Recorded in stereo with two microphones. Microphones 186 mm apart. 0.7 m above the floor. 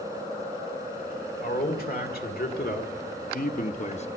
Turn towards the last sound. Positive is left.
turn(degrees=35)  # may be behind; listen again after turning